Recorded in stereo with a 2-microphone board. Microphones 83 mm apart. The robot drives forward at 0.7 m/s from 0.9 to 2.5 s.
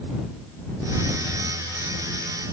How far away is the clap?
No clap in this recording.